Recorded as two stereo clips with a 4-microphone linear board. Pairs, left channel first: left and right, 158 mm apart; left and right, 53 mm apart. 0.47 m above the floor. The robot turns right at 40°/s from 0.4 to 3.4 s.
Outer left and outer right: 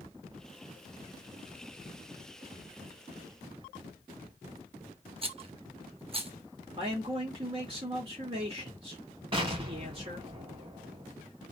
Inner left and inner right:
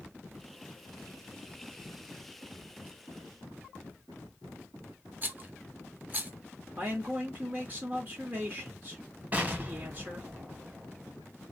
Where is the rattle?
35° right (ahead or behind), 0.7 m.